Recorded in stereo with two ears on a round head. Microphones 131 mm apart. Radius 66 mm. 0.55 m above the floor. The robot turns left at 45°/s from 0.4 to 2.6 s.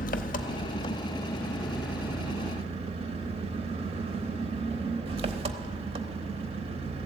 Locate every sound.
0.0 s an engine running: 60° left, 0.8 m; by 7.1 s 40° right, 0.8 m